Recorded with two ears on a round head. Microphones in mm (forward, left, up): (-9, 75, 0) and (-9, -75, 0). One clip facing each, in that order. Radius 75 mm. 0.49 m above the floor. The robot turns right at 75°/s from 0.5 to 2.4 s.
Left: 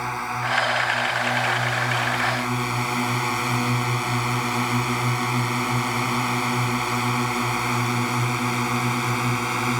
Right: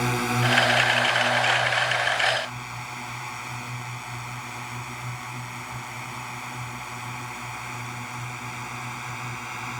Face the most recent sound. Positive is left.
turn(degrees=65)  # may be behind; listen again after turning